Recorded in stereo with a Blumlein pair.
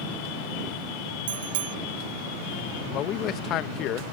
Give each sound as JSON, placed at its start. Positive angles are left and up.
{"t": 1.3, "sound": "a bicycle bell", "azimuth_deg": -60}
{"t": 2.9, "sound": "a man speaking", "azimuth_deg": 35}